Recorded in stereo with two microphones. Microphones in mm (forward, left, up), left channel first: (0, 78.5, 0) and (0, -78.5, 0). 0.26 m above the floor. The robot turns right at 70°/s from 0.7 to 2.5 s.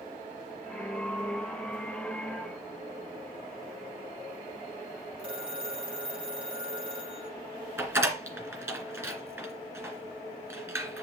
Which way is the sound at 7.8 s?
15° right (ahead or behind).